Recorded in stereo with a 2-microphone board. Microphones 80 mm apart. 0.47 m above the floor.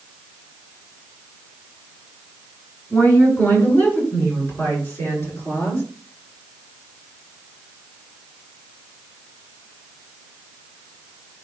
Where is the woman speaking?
20° left (ahead or behind), 6 m; by 5.8 s 30° left (ahead or behind), 8 m.